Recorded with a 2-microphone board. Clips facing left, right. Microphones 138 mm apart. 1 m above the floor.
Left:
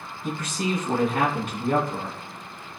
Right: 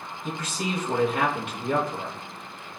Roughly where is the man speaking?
Left.